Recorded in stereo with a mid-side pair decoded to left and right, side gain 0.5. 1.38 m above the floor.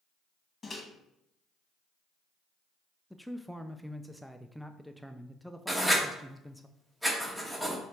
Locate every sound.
0.6 s a microwave: 25° left, 1.6 m
3.1 s a man speaking: straight ahead, 0.5 m
5.7 s writing: 5° right, 1.8 m